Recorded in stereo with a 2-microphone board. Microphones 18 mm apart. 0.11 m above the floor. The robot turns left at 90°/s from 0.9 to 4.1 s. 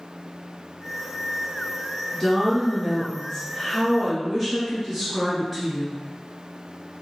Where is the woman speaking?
175° left, 1.9 m; by 6.0 s straight ahead, 1.9 m.